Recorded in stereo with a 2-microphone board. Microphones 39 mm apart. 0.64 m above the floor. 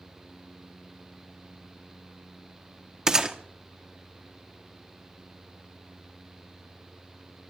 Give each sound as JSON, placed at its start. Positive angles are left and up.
{"t": 3.1, "sound": "a gunshot", "side_deg": -15, "distance_m": 1.0}